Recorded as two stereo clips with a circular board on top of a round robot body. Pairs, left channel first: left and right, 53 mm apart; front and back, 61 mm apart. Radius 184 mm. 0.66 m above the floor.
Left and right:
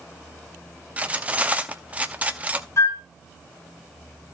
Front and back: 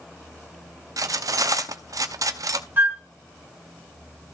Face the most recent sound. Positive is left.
turn(degrees=120)